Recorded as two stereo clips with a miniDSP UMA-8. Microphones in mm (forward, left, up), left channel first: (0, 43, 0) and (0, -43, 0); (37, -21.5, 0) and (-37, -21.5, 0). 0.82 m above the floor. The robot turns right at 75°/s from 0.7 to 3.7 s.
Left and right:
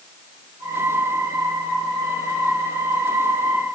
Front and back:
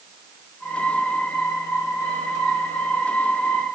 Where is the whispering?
No whispering in this recording.